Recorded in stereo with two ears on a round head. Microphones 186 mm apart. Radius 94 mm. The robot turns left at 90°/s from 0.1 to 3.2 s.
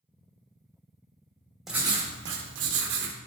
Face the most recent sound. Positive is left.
turn(degrees=-140)